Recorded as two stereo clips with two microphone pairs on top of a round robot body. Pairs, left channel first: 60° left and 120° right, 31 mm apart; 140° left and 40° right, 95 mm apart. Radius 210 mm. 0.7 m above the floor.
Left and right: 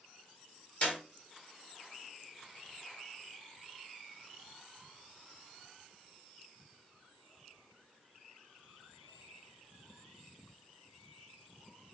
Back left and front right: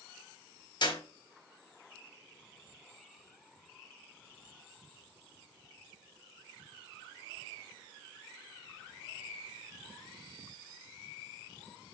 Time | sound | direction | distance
0.8 | a clap | 110° left | 4.5 m